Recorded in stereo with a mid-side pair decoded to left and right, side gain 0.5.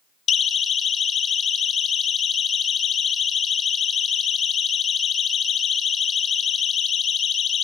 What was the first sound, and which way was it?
A siren, 50° left.